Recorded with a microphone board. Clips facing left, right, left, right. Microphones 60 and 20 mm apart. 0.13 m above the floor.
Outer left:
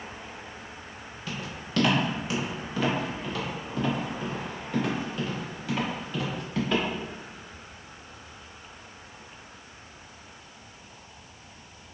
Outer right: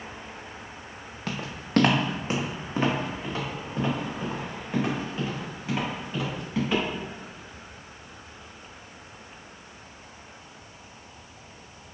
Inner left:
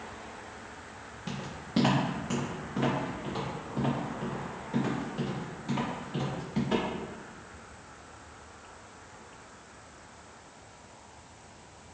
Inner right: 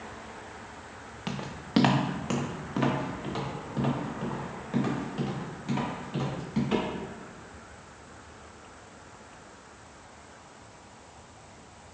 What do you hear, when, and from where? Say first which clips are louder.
1.3 s footsteps: outer right 3 dB, inner right 3 dB; 65° right (ahead or behind), 0.8 m; by 6.8 s 15° right (ahead or behind), 3.5 m